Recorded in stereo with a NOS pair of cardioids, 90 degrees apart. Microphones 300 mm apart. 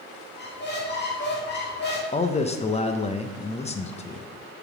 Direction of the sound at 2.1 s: 20° left.